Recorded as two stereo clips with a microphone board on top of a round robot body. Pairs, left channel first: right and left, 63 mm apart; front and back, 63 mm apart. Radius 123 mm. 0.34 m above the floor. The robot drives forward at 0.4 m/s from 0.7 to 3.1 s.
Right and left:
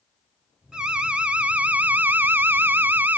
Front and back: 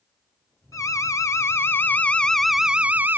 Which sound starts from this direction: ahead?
An alarm, at 0.7 s.